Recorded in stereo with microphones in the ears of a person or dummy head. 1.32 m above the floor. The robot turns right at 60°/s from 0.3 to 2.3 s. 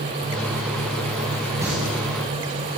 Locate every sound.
1.6 s singing: 15° right (ahead or behind), 7.5 m; by 1.7 s 20° right (ahead or behind), 7.5 m